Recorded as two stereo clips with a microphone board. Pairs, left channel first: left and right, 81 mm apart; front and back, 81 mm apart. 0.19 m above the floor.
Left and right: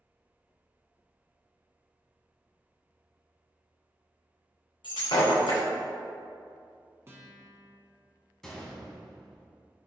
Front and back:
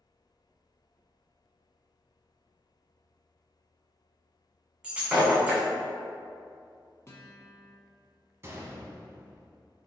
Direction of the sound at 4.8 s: 100° left.